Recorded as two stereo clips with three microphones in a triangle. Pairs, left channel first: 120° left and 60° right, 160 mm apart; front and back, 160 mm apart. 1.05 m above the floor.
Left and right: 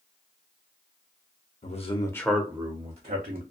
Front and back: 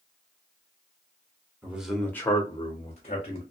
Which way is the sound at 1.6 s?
105° left.